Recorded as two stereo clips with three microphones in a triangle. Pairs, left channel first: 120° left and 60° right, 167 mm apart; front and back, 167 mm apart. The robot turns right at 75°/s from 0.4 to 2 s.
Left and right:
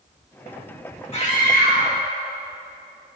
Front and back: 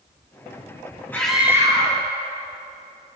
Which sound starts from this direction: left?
A scream, at 1.1 s.